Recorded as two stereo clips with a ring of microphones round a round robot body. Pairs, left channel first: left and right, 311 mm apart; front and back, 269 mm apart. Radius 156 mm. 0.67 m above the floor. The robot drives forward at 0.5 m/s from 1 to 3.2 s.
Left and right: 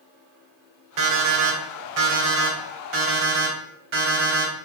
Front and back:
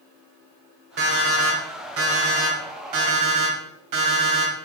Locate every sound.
1.0 s an alarm clock: 120° right, 1.7 m; by 4.5 s 145° right, 2.5 m